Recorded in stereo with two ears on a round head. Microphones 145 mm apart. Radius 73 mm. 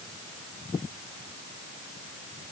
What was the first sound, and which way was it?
Only background noise.